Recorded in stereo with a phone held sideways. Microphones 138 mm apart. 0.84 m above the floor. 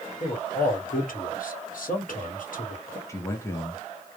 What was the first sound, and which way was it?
A man speaking, 75° left (ahead or behind).